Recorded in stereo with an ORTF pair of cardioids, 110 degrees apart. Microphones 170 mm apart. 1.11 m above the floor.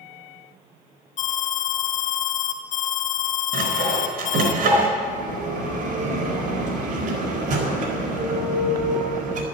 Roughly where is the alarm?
Ahead left.